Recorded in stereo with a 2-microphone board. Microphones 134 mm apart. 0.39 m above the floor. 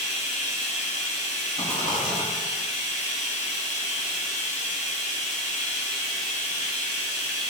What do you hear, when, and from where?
0.0 s running water: 70° left (ahead or behind), 1.3 m
1.6 s a rattle: 60° left (ahead or behind), 1.1 m